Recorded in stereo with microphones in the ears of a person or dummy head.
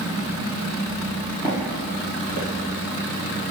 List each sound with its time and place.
1.4 s footsteps: 5° right (ahead or behind), 1.8 m; by 2.5 s 40° right (ahead or behind), 2.5 m